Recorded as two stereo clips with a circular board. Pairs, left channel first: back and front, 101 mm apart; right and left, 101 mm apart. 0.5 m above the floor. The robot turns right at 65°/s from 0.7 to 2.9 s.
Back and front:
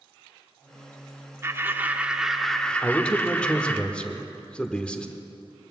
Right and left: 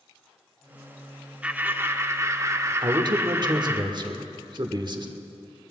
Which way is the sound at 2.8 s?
100° left.